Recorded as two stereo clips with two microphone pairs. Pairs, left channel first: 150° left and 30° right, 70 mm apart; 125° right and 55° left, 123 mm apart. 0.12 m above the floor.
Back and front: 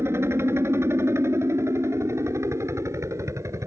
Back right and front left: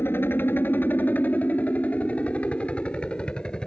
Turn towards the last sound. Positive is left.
turn(degrees=-45)